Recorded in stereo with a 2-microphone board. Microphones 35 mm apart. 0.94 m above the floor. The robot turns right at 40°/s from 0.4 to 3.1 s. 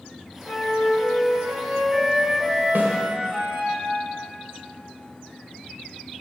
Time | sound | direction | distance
0.5 | a flute | 110° left | 1.9 m
2.8 | a snare drum | 70° right (ahead or behind) | 1.5 m